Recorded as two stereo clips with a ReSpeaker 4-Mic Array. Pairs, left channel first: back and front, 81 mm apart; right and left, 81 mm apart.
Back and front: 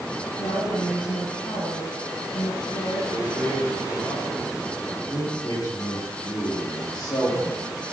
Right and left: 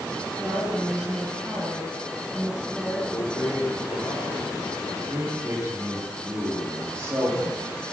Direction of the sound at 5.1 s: 145° left.